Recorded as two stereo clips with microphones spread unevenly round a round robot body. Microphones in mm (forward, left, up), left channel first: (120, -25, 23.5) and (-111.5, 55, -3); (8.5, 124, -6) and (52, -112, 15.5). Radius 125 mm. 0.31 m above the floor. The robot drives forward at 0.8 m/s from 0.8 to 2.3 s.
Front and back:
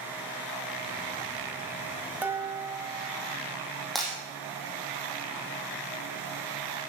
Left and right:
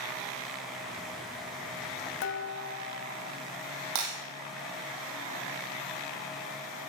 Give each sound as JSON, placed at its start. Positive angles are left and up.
{"t": 2.2, "sound": "dishes clattering", "azimuth_deg": 80, "distance_m": 1.2}
{"t": 4.0, "sound": "breaking glass", "azimuth_deg": -110, "distance_m": 5.0}